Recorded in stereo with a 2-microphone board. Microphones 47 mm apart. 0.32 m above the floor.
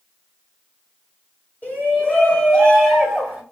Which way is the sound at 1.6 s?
40° left (ahead or behind).